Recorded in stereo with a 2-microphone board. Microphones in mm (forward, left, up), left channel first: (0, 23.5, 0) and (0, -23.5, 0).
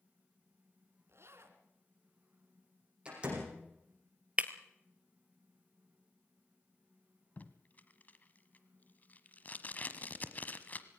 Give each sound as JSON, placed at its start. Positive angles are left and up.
{"t": 1.1, "sound": "a zipper", "side_deg": -65, "distance_m": 2.0}
{"t": 3.0, "sound": "a door slam", "side_deg": -20, "distance_m": 8.5}
{"t": 4.4, "sound": "breaking glass", "side_deg": -25, "distance_m": 1.2}
{"t": 7.4, "sound": "tape being pulled", "side_deg": 35, "distance_m": 1.2}